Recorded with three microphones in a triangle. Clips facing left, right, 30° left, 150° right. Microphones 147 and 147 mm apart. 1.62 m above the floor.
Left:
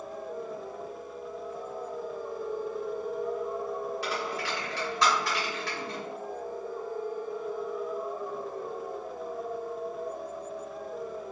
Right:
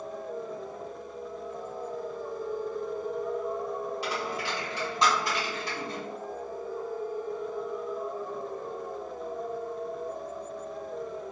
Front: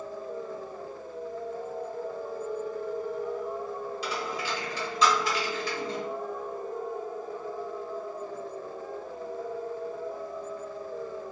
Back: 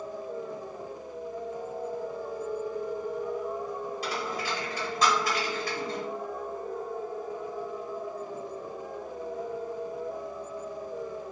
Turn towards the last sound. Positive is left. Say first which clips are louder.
# even, even
turn(degrees=-155)